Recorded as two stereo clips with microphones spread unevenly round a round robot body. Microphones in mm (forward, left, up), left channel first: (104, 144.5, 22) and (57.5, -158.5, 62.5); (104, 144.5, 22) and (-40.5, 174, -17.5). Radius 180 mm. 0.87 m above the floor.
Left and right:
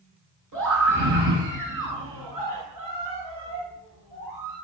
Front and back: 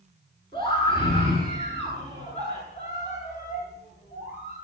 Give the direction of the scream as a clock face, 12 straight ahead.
3 o'clock.